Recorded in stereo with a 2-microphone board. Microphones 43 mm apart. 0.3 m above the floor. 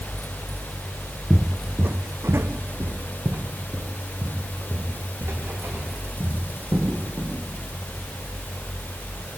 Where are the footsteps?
10° right (ahead or behind), 1.0 m; by 7.3 s 60° right (ahead or behind), 6.5 m.